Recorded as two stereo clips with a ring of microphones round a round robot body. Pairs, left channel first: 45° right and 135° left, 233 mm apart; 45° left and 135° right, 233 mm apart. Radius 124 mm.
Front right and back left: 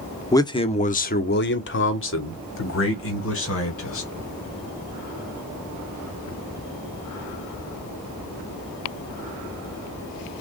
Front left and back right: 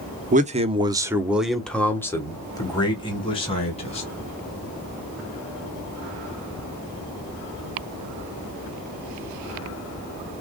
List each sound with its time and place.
0.3 s a man speaking: 115° right, 0.8 m; by 4.1 s 20° right, 2 m